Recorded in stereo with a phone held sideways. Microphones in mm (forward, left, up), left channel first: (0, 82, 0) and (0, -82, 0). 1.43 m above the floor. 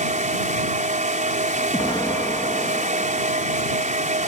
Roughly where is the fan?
Right.